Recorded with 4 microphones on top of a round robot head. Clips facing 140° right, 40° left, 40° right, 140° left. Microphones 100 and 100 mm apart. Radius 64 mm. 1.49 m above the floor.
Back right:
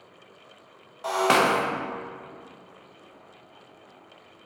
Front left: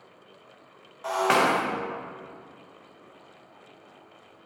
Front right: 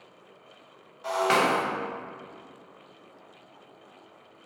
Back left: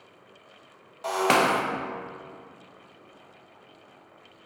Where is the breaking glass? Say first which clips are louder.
Back right 1 dB, back left 1 dB; 160° left, 0.7 m.